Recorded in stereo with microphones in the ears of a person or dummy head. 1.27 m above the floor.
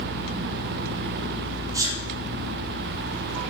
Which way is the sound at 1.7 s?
10° right (ahead or behind).